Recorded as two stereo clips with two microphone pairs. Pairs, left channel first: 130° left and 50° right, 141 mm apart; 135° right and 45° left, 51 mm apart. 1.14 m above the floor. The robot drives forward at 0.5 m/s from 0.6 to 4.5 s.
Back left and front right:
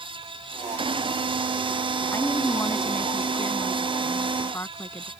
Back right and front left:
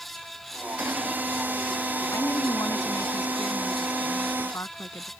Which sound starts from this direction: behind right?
A woman speaking, at 2.1 s.